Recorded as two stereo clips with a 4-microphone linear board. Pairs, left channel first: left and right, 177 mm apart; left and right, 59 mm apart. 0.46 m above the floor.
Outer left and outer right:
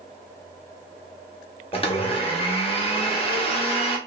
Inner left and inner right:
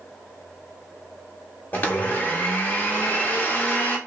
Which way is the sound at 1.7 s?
30° left (ahead or behind).